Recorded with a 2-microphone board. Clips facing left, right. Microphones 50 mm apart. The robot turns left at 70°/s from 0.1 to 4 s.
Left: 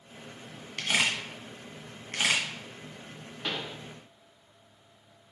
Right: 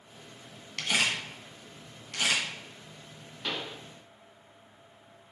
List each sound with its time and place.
0.8 s a camera shutter: 15° left (ahead or behind), 1.9 m; by 2.4 s 25° left (ahead or behind), 1.9 m
3.4 s a pop: 10° left (ahead or behind), 1.4 m; by 3.8 s 10° right (ahead or behind), 1.4 m